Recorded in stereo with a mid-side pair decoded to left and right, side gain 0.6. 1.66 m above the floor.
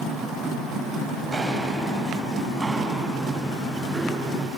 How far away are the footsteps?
About 8.5 m.